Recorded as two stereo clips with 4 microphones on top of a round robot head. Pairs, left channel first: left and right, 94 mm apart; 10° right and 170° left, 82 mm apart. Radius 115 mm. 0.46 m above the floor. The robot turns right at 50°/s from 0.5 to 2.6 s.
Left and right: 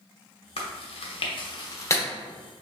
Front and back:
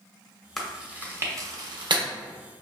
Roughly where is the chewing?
Left.